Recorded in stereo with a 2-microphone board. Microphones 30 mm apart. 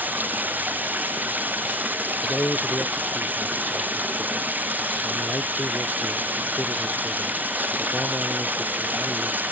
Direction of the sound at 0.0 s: 85° right.